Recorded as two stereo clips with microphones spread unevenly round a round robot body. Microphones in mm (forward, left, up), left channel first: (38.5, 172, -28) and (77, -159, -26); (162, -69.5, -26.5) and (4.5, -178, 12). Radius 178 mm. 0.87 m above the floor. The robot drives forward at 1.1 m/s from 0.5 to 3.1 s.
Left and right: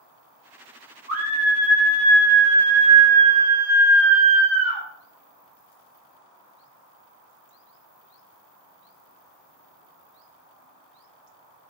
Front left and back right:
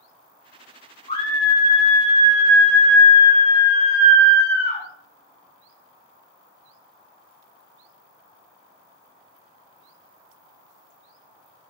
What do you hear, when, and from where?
1.1 s a scream: 20° right, 7 m; by 4.8 s 30° right, 5 m